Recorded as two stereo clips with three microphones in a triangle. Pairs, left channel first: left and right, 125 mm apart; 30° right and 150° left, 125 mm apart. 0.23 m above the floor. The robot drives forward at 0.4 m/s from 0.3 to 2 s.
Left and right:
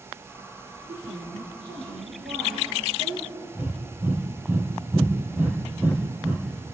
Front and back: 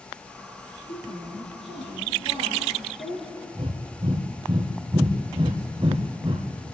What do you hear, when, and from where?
0.9 s a woman speaking: 55° right, 7 m; by 3.5 s 60° right, 6.5 m
3.5 s breathing: 165° right, 2 m